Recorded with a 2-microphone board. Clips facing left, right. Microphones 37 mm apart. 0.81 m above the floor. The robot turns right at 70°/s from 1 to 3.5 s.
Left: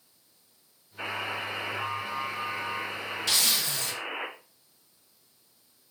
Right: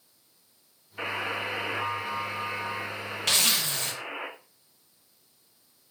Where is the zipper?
65° right (ahead or behind), 0.6 m; by 3.9 s 45° right (ahead or behind), 0.6 m.